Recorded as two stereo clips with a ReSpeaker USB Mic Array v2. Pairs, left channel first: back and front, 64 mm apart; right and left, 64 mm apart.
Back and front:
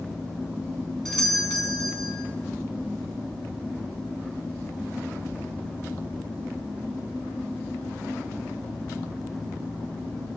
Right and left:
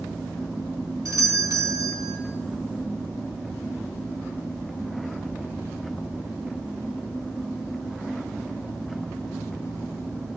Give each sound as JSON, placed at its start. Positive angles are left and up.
{"t": 1.1, "sound": "a doorbell", "azimuth_deg": 95, "distance_m": 4.5}